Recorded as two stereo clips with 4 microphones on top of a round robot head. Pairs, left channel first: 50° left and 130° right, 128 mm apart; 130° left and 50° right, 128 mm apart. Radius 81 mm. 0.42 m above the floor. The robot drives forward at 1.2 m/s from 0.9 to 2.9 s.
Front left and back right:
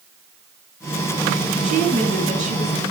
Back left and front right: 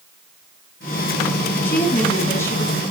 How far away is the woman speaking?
About 5.5 m.